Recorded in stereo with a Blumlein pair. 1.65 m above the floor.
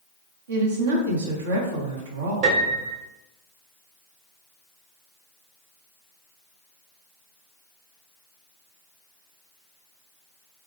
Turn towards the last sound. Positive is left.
turn(degrees=-45)